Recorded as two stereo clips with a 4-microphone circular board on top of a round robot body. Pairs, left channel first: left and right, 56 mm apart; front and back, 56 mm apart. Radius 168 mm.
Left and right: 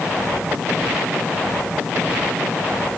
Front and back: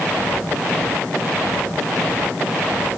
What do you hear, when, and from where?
Only background noise.